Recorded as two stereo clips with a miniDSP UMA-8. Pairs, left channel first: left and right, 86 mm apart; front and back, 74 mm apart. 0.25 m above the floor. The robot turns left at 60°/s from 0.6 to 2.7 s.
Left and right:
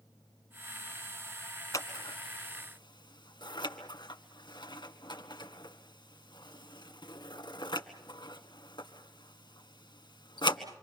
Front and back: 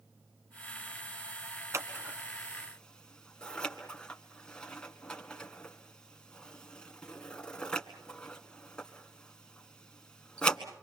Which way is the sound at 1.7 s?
135° left.